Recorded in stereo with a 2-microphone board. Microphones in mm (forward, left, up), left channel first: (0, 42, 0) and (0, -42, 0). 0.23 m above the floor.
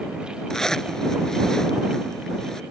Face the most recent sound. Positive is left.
turn(degrees=5)  # may be behind; listen again after turning